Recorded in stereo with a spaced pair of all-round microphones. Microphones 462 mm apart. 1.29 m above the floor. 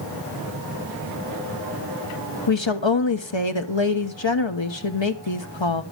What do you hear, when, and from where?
2.5 s a woman speaking: 70° left (ahead or behind), 1.1 m